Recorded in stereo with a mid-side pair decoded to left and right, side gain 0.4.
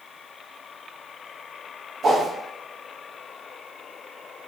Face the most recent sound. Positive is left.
turn(degrees=-65)